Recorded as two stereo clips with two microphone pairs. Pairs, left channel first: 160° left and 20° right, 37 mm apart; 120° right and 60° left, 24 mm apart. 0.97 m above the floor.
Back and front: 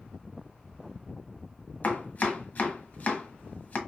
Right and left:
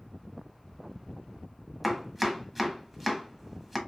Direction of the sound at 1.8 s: 140° left.